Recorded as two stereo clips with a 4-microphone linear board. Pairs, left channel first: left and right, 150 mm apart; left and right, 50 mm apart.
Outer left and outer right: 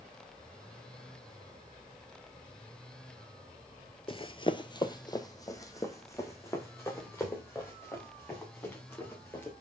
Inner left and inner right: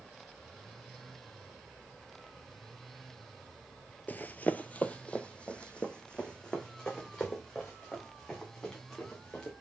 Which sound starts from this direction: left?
Running footsteps, at 4.1 s.